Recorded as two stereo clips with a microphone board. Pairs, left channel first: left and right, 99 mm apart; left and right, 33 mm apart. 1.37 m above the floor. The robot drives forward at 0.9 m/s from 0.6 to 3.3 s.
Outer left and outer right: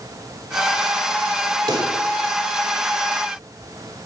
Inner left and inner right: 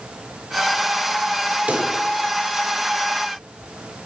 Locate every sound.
1.7 s a pop: 50° right (ahead or behind), 3 m; by 1.9 s 55° right (ahead or behind), 2.5 m